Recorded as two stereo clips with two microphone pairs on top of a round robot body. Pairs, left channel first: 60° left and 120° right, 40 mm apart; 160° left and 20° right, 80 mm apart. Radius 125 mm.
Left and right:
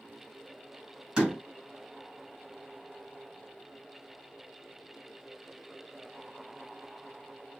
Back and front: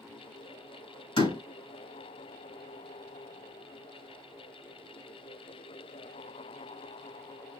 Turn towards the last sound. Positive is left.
turn(degrees=170)